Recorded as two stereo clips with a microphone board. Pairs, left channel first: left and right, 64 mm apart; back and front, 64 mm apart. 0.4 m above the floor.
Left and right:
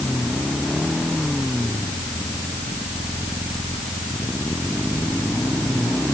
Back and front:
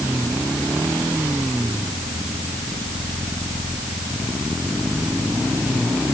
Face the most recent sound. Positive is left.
No sound to turn to.